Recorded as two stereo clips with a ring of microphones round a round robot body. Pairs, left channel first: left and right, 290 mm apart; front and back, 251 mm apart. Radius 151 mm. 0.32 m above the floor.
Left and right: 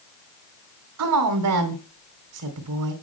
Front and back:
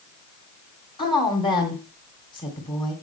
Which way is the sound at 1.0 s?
70° right.